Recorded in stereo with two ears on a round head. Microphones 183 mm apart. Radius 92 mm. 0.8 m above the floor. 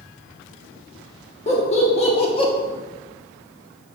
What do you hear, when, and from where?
1.5 s laughter: 35° left (ahead or behind), 1.4 m; by 2.5 s 25° left (ahead or behind), 0.8 m